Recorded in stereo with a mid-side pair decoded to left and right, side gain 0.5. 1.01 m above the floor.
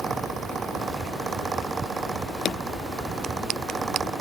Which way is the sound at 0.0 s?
35° right.